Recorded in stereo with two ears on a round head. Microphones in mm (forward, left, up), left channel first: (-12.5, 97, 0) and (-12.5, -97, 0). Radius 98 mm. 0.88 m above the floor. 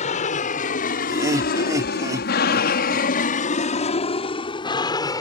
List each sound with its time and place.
0.0 s an aircraft: 35° left (ahead or behind); by 5.2 s 15° left (ahead or behind)
1.1 s laughter: 15° right (ahead or behind)